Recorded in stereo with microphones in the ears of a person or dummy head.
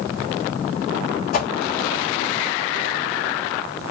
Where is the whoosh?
55° left (ahead or behind), 1.5 m.